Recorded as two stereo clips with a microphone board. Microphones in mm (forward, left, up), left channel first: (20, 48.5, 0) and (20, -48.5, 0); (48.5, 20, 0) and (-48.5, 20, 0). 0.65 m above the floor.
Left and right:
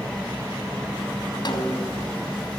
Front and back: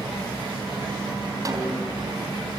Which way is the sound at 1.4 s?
130° left.